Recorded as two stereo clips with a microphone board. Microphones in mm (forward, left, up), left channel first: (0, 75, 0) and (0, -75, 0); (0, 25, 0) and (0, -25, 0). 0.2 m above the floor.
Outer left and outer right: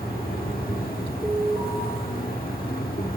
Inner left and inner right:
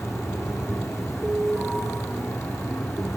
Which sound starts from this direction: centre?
An alarm, at 1.2 s.